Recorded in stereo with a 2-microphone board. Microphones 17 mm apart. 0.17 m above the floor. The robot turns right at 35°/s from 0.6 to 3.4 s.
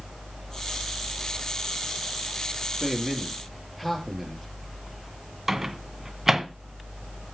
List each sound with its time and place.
2.8 s a man speaking: 10° right (ahead or behind), 4.5 m; by 4.5 s 10° left (ahead or behind), 4.5 m
5.5 s a microwave: 15° right (ahead or behind), 1.5 m